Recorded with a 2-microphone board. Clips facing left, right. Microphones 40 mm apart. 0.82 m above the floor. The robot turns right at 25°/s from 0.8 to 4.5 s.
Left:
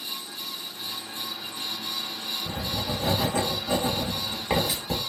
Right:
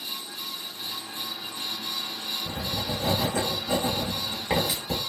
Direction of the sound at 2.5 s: 75° left (ahead or behind).